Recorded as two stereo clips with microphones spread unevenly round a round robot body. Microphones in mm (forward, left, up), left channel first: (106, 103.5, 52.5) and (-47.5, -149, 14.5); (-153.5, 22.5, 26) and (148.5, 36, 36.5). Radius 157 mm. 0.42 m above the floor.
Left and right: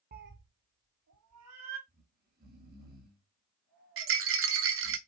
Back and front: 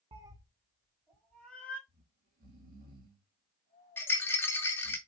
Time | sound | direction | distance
0.1 | a cat meowing | 70° right | 0.8 m
1.9 | snoring | 60° right | 3.5 m
4.0 | a rattle | 95° right | 1.2 m